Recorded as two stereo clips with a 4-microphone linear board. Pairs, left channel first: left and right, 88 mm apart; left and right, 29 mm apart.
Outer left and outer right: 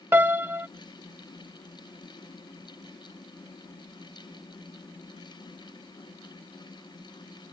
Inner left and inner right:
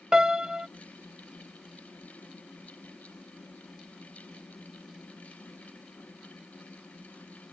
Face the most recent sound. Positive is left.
turn(degrees=-25)  # may be behind; listen again after turning